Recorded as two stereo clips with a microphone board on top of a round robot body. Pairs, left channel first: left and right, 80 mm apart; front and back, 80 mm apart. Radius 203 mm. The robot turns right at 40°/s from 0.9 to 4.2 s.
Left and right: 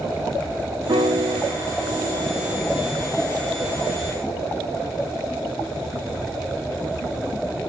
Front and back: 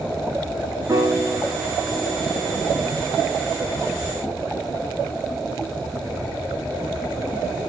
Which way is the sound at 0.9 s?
125° right.